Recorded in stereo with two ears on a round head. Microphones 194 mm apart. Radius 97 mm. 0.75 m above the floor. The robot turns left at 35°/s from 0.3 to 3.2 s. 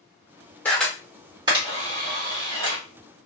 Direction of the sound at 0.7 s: 10° left (ahead or behind).